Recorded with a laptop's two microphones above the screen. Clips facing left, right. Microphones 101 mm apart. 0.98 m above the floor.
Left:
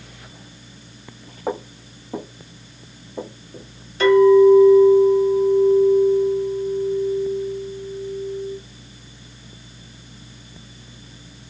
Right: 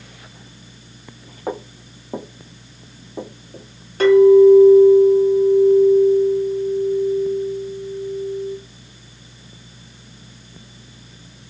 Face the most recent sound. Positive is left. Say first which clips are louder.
# right 2 dB
turn(degrees=-50)  # may be behind; listen again after turning